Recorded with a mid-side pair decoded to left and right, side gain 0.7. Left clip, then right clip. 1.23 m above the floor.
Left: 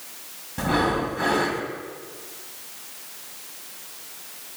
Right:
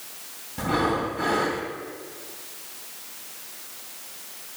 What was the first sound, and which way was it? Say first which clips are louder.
Breathing: left 1 dB; 20° left.